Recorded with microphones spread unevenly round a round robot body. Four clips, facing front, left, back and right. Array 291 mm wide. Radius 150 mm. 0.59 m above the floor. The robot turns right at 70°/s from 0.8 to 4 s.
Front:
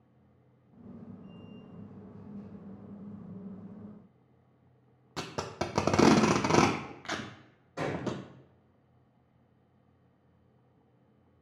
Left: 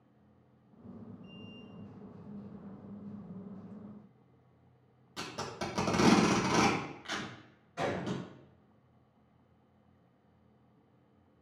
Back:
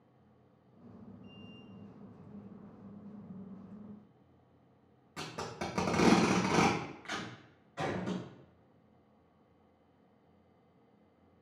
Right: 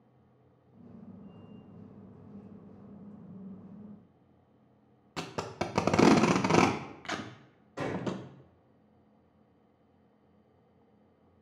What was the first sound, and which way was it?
Tape being pulled, 45° right.